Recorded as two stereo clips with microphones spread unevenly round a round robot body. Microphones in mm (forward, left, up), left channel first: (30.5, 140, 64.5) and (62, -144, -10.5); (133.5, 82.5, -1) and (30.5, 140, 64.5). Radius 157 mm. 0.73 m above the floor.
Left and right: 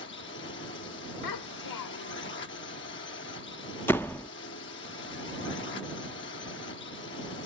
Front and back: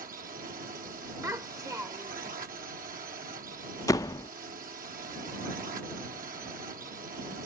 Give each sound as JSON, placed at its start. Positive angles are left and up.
{"t": 0.0, "sound": "a drone", "azimuth_deg": 150}
{"t": 1.2, "sound": "a child speaking", "azimuth_deg": 80}
{"t": 3.9, "sound": "a door slam", "azimuth_deg": 5}